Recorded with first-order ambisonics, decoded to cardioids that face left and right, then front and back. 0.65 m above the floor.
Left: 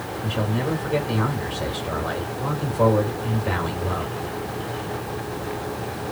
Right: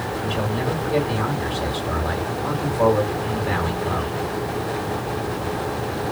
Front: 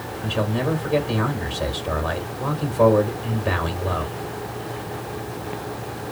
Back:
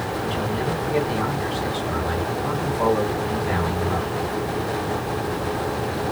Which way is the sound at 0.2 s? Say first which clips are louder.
Even, front 5 dB; 20° left.